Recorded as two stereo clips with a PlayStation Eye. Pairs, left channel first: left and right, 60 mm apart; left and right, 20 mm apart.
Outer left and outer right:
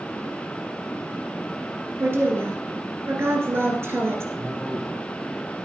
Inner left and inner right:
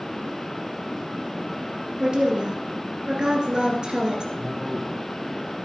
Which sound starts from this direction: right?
A woman speaking, at 2.0 s.